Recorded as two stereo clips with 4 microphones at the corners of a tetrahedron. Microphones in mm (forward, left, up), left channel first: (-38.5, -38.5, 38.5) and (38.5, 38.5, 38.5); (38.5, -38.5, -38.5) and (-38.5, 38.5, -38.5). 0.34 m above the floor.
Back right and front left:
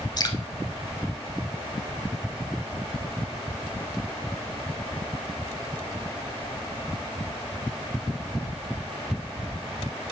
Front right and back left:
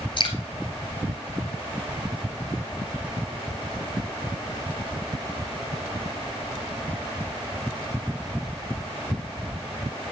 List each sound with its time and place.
0.2 s dripping: 85° right, 1.0 m